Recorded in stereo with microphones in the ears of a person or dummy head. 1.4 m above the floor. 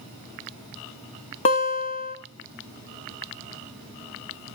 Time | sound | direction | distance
1.4 | a guitar | 35° left (ahead or behind) | 1.6 m